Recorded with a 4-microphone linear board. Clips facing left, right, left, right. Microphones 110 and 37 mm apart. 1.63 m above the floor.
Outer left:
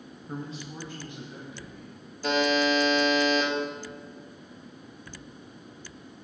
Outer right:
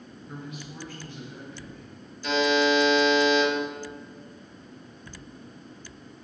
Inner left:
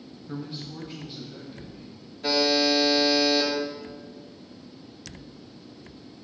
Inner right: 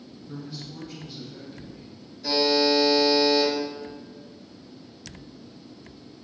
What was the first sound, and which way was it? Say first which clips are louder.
A man speaking: outer left 3 dB, inner left 3 dB; 40° left (ahead or behind).